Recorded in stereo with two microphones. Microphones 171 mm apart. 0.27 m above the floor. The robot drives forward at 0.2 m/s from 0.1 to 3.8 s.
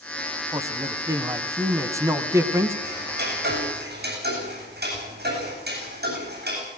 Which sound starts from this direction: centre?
A man speaking, at 0.5 s.